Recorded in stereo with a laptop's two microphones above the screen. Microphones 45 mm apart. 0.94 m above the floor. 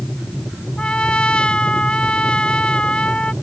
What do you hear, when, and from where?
0.8 s a trumpet: 20° left (ahead or behind)